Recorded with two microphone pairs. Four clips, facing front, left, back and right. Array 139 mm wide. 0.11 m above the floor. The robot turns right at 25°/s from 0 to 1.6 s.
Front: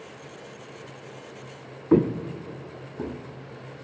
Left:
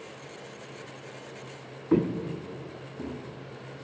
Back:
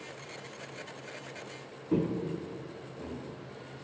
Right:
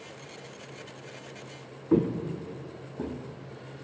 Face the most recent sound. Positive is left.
turn(degrees=-40)